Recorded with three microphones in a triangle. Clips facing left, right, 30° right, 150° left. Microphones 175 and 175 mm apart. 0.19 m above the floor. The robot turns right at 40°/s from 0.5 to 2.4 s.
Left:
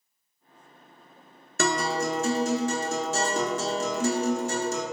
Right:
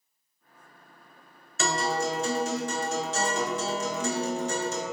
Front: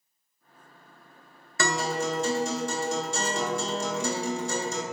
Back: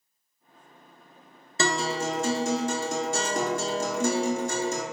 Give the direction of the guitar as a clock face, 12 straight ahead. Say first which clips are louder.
Left 2 dB, back 1 dB; 9 o'clock.